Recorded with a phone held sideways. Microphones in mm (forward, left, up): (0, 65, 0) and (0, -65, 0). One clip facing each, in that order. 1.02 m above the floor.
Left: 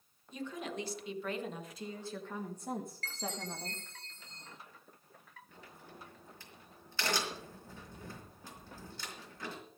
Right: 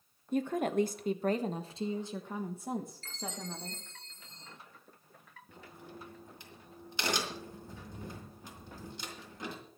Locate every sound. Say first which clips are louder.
0.3 s a woman speaking: right 10 dB; 55° right (ahead or behind), 1.3 m; by 3.8 s 10° left (ahead or behind), 1.9 m
3.0 s a chime: left 1 dB; 70° left (ahead or behind), 3 m
5.5 s a crack: right 5 dB; 15° right (ahead or behind), 4.5 m